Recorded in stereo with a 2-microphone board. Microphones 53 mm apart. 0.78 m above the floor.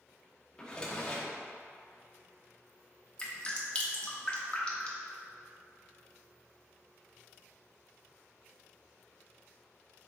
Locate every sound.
0.6 s a drawer: 15° left (ahead or behind), 0.7 m
3.2 s dripping: 20° left (ahead or behind), 0.7 m